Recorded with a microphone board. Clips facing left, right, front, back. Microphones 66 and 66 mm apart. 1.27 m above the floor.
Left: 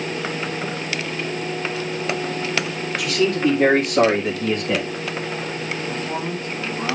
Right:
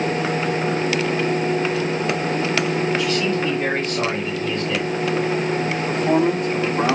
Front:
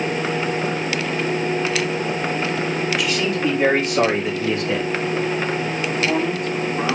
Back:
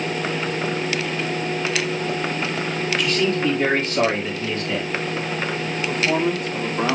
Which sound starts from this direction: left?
A man speaking, at 3.0 s.